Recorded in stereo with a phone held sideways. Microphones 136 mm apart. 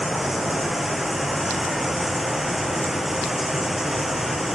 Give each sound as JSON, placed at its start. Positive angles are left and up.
{"t": 0.0, "sound": "running water", "side_deg": 0}